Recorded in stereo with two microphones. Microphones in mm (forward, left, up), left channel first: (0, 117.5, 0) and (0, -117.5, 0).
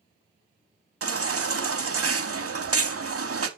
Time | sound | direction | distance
1.0 | a baby crying | 65° right (ahead or behind) | 0.7 m